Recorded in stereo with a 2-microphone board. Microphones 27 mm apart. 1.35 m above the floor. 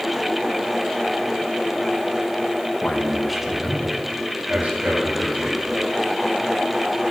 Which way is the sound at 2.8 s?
30° left (ahead or behind).